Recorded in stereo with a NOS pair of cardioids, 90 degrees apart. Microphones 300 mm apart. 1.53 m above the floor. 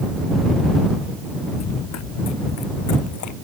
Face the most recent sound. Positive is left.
turn(degrees=80)